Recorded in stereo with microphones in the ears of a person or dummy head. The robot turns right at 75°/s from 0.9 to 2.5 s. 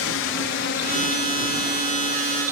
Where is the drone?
65° left (ahead or behind); by 2.5 s 65° right (ahead or behind).